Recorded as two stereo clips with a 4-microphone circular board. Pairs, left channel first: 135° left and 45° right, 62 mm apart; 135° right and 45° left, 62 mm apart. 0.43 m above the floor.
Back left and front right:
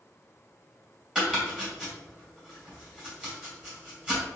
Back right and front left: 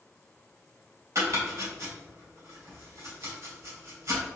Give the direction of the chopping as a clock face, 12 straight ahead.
11 o'clock.